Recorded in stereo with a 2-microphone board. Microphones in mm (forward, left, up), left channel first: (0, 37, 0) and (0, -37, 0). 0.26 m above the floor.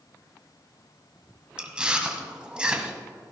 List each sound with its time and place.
1.6 s chewing: 15° right (ahead or behind), 1.3 m